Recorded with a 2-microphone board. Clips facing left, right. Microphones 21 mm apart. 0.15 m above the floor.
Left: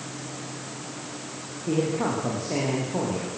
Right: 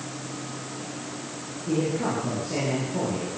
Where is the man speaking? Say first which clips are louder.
Left 1 dB; 65° left (ahead or behind), 9.5 m.